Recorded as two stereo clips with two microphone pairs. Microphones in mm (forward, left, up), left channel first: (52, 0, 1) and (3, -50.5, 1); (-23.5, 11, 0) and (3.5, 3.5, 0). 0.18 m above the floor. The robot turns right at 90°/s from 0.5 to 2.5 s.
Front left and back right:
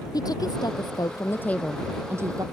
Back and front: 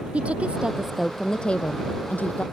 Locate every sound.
0.1 s a woman speaking: 25° left; by 2.4 s 160° right